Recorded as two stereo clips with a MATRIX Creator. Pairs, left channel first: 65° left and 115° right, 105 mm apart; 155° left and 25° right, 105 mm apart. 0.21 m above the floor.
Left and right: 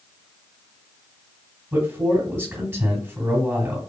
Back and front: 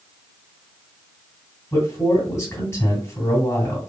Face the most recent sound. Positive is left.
turn(degrees=-155)